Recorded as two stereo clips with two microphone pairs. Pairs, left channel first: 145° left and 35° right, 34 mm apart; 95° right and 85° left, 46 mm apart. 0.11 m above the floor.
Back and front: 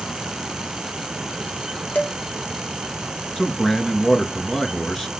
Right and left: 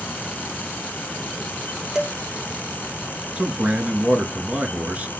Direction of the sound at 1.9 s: 170° left.